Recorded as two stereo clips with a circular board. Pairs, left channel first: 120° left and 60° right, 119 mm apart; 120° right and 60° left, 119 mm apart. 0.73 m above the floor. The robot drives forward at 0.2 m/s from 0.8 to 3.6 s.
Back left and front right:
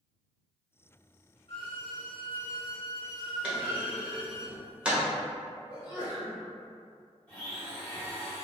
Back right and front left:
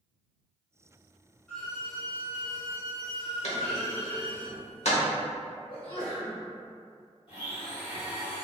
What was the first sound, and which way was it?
A violin, 160° left.